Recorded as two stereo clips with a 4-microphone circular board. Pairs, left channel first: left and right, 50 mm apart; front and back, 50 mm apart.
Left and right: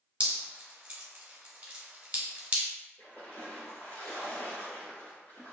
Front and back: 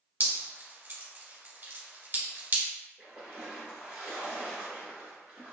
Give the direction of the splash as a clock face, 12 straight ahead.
8 o'clock.